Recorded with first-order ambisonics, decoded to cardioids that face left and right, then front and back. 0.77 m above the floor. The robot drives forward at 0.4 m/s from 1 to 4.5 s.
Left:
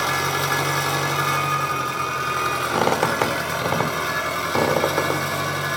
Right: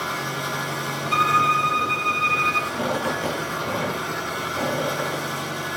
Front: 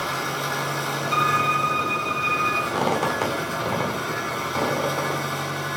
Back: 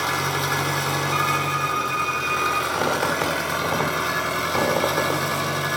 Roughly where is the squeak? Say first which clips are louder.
Left 5 dB, back 1 dB; left.